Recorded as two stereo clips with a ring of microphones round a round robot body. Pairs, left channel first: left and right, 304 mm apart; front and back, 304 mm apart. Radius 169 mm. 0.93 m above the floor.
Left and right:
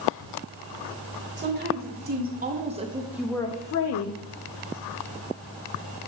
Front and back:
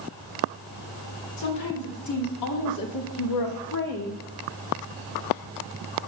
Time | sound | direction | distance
1.4 | a woman speaking | 35° right | 1.8 m